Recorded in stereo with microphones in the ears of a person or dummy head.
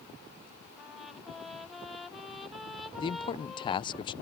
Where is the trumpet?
5° left (ahead or behind).